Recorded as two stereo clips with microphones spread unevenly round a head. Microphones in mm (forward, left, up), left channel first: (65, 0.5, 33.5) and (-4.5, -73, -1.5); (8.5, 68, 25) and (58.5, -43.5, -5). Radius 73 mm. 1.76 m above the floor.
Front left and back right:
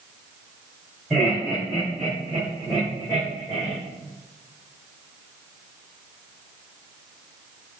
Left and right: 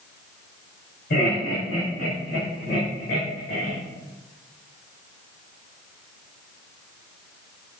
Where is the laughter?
140° left, 4.5 m; by 3.8 s 110° left, 3.5 m.